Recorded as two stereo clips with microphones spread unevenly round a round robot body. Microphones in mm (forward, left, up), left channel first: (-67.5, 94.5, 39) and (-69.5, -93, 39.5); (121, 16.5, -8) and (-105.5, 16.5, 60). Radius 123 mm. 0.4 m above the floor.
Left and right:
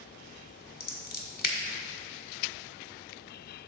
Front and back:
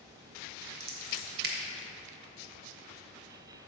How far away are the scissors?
About 1.4 m.